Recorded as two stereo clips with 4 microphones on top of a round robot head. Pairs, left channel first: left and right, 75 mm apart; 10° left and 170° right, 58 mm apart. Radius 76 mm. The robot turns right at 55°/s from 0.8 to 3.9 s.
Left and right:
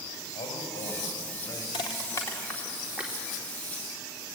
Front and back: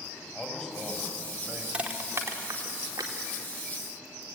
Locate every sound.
0.3 s a man speaking: 85° left, 6.5 m; by 1.6 s 130° left, 6.5 m
1.7 s crushing: 120° left, 2 m; by 3.1 s 160° right, 2 m